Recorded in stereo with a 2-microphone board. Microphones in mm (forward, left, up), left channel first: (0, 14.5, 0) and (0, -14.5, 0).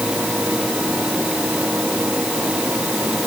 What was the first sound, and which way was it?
Only background noise.